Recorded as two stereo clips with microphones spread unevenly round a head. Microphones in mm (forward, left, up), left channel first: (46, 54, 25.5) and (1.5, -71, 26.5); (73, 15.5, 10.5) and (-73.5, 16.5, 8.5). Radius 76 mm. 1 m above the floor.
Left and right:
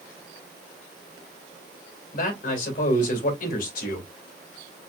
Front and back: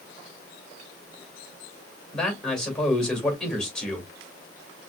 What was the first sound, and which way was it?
A man speaking, 85° left.